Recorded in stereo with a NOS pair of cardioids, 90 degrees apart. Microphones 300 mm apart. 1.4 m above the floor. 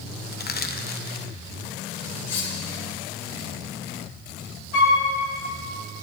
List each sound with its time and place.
0.3 s crushing: 35° left, 1.1 m
2.2 s cutlery clinking: 60° left, 3 m
4.7 s a flute: 70° left, 3.5 m